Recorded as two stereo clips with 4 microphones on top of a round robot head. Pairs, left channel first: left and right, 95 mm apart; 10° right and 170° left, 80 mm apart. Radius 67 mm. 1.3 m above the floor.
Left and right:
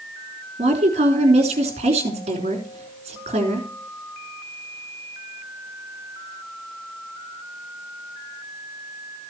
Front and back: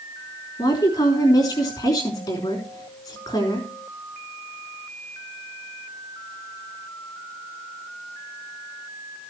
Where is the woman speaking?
65° right, 3.5 m.